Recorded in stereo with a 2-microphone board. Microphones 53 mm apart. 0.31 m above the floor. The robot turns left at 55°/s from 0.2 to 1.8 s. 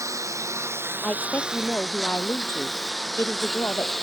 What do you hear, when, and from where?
0.0 s a lawn mower: 85° right; by 4.0 s 5° left (ahead or behind)
1.0 s a woman speaking: 170° left; by 3.9 s 125° left